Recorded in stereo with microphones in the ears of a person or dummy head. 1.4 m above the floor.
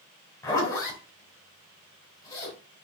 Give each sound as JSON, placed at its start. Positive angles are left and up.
{"t": 0.4, "sound": "a zipper", "side_deg": 20, "distance_m": 5.0}